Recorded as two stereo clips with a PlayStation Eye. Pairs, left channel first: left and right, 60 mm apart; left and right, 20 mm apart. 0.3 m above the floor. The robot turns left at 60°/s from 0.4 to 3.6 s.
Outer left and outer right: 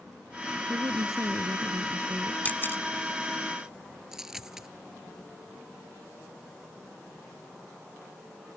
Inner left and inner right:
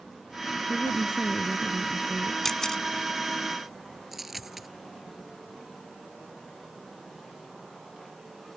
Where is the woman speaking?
65° right; by 2.4 s 165° right.